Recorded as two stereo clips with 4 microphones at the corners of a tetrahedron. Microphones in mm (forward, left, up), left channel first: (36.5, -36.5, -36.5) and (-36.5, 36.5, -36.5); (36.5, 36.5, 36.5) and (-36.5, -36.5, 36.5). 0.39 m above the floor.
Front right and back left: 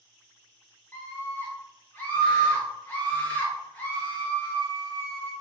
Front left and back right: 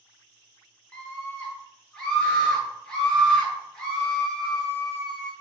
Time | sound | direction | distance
0.9 | a scream | 25° right | 0.9 m